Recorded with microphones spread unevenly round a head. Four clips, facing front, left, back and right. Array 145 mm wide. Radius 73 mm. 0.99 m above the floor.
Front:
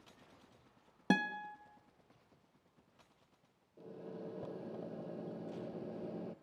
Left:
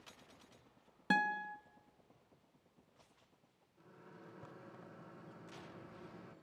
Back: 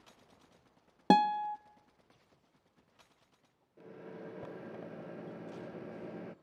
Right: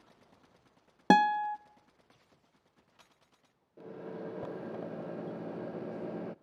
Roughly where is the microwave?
Right.